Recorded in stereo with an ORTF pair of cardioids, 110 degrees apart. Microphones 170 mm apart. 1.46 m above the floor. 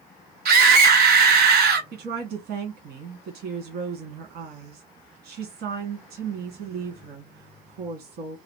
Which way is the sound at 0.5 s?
70° right.